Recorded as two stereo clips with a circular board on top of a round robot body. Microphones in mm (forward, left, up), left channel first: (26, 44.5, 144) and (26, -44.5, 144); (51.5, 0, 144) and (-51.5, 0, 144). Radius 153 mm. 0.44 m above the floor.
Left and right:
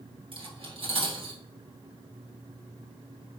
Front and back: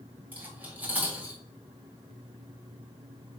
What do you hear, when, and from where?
0.3 s cutlery clinking: 105° right, 1.9 m